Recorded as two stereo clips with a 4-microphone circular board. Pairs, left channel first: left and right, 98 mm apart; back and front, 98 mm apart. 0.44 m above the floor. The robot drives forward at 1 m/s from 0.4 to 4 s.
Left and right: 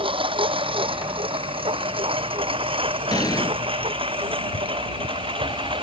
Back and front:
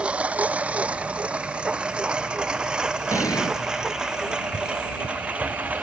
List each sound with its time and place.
0.0 s a lawn mower: 80° right; by 5.8 s 75° right
3.1 s an explosion: 130° left; by 3.5 s 140° left